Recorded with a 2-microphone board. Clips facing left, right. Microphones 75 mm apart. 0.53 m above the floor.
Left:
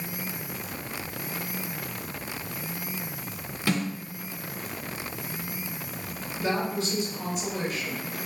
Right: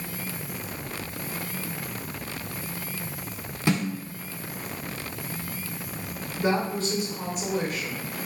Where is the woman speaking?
45° right (ahead or behind), 1.9 m.